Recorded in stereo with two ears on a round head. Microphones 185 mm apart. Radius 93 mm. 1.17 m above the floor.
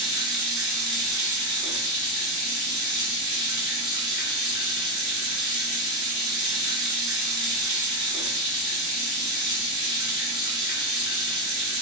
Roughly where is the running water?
Right.